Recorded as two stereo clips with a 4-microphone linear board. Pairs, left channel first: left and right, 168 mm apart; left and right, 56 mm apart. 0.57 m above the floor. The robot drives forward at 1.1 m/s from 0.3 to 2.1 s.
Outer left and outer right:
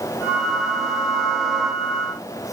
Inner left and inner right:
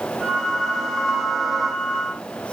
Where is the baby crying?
I don't hear a baby crying.